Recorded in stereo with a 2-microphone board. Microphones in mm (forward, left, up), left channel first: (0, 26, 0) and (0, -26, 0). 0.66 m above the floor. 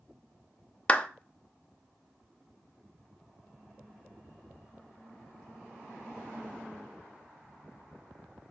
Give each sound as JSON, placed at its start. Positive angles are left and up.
{"t": 0.9, "sound": "a clap", "side_deg": 25, "distance_m": 0.6}